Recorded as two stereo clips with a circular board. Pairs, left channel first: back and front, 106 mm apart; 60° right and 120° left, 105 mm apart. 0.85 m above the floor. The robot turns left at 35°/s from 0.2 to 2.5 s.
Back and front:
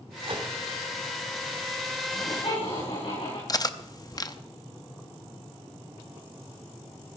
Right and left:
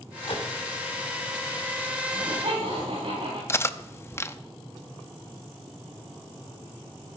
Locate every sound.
0.2 s a microwave: 35° right, 2.5 m; by 0.5 s 45° right, 2.5 m
2.1 s laughter: 160° left, 7.5 m; by 3.4 s 145° left, 7.5 m
3.5 s cutlery clinking: 125° right, 0.6 m